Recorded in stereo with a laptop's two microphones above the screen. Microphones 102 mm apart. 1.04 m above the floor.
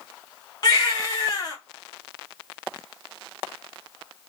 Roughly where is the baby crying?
Left.